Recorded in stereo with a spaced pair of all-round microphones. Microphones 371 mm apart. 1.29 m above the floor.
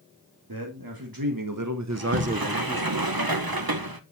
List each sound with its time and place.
0.5 s a man speaking: 70° right (ahead or behind), 2.5 m; by 2.9 s 15° left (ahead or behind), 0.8 m
1.9 s a sliding door: 70° right (ahead or behind), 1.3 m